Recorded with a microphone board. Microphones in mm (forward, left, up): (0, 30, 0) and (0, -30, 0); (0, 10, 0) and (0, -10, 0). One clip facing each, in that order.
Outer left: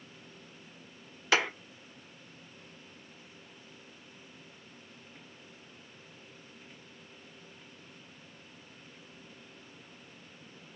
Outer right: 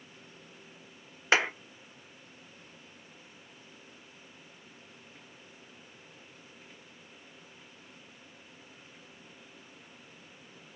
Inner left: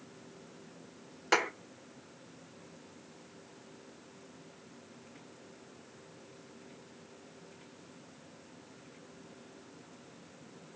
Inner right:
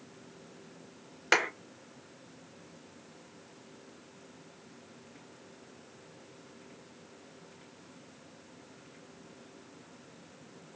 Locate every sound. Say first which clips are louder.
1.3 s a clap: outer right 2 dB, inner right 2 dB; 30° right (ahead or behind), 1.5 m